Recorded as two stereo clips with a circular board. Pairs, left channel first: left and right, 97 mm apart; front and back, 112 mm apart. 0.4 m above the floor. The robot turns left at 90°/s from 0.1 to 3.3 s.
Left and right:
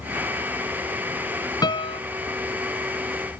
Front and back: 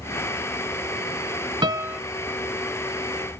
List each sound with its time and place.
1.6 s a piano: 135° left; by 2.0 s 100° left